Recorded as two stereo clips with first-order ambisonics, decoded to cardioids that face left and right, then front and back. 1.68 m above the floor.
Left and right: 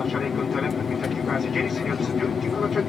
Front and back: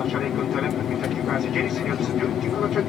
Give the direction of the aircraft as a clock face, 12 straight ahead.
11 o'clock.